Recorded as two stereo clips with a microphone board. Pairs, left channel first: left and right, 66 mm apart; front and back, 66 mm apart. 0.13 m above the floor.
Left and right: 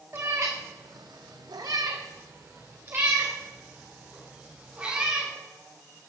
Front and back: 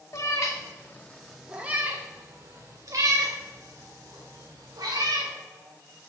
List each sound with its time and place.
0.1 s a cat meowing: 35° right, 1.4 m; by 5.3 s 165° right, 4 m